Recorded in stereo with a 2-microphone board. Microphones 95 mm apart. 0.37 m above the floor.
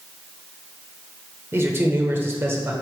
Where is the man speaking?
25° right (ahead or behind), 1.0 m.